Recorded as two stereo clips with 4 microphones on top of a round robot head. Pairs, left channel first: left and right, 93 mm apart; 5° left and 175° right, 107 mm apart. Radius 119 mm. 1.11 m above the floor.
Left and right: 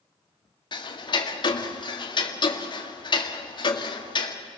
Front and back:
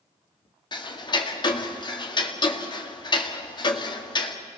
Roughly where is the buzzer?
No buzzer in this recording.